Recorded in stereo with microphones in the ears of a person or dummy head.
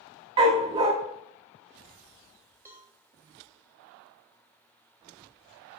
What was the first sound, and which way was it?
A dog barking, 30° right (ahead or behind).